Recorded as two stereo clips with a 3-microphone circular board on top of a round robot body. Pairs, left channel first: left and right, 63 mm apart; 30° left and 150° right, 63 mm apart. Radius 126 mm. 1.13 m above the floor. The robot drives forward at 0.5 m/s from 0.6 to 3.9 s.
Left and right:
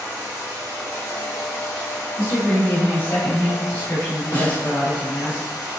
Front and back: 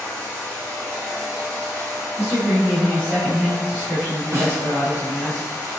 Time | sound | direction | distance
0.0 | running water | 30° right | 0.8 m
2.2 | a woman speaking | 145° left | 1.5 m
4.3 | a snare drum | 160° left | 1.0 m